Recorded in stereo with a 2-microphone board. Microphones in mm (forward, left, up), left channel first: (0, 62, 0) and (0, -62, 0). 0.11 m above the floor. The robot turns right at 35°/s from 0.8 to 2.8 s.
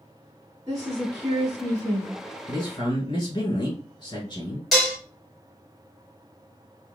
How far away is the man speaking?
About 1.4 m.